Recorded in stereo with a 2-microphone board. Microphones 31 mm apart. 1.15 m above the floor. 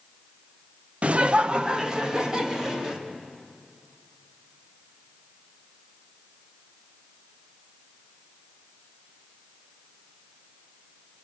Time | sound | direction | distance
1.0 | laughter | 40° right (ahead or behind) | 0.6 m